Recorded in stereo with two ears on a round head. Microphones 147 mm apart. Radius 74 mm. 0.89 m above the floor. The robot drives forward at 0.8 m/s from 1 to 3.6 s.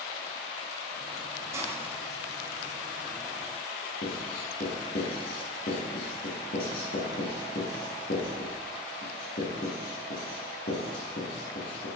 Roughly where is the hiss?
Centre.